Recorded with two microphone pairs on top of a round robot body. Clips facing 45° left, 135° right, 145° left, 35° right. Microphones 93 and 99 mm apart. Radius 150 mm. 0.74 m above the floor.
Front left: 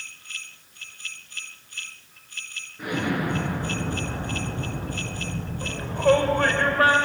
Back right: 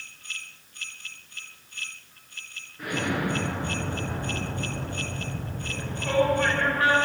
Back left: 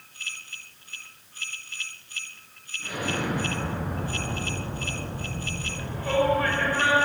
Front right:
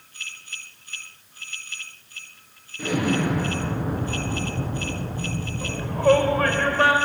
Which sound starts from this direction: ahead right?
An explosion, at 2.8 s.